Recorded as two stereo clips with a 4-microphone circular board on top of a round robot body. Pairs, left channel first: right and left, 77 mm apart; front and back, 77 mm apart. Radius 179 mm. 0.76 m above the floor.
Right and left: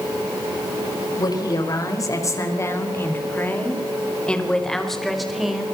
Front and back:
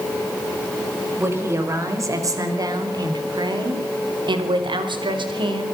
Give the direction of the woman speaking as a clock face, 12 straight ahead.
4 o'clock.